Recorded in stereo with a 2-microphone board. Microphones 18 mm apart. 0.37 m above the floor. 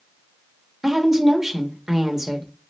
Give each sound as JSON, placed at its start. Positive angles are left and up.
{"t": 0.8, "sound": "a woman speaking", "side_deg": -25, "distance_m": 0.9}